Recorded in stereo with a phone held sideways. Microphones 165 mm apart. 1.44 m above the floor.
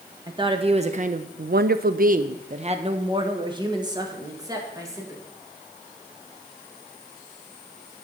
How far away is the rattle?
I don't hear a rattle.